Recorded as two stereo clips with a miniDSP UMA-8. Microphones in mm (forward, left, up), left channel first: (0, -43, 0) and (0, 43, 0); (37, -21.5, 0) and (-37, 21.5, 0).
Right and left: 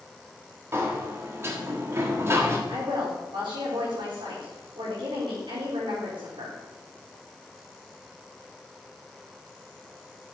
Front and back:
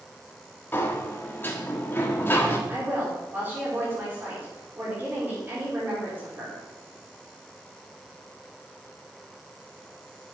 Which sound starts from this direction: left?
A woman speaking, at 2.7 s.